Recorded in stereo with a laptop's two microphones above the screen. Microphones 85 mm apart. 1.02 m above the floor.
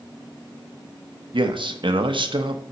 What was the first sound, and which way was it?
A man speaking, 75° right (ahead or behind).